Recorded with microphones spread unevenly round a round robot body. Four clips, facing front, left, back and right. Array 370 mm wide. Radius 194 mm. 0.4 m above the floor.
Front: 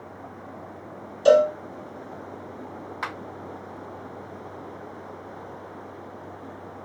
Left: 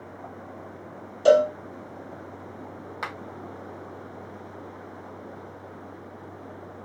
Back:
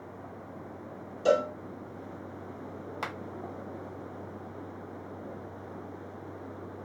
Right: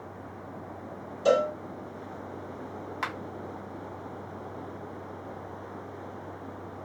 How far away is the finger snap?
About 0.9 m.